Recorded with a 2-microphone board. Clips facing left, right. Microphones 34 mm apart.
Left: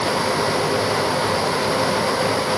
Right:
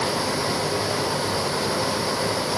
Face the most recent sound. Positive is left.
No sound to turn to.